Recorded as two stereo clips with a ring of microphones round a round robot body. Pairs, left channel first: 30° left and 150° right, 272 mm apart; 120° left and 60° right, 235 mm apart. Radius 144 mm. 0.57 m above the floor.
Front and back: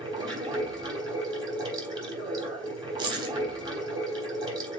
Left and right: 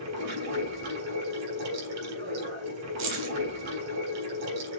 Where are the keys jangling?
75° right, 2.5 m.